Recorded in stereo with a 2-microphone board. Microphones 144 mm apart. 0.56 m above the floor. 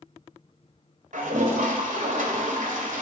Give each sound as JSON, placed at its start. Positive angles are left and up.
{"t": 1.1, "sound": "a toilet flushing", "side_deg": -65, "distance_m": 2.0}